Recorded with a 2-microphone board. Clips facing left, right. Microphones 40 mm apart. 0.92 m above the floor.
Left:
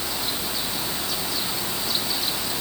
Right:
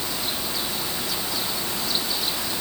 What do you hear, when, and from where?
Only background noise.